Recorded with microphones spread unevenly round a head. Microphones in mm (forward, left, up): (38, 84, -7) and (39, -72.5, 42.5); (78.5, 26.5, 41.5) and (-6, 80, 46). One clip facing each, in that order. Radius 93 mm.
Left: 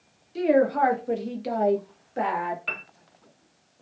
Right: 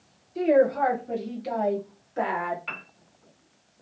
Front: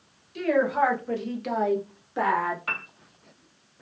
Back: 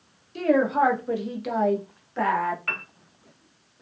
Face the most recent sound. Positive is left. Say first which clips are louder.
# left 3 dB, front 1 dB
turn(degrees=45)